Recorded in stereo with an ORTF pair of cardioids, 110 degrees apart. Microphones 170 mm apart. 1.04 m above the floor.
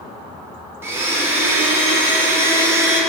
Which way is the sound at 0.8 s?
15° right.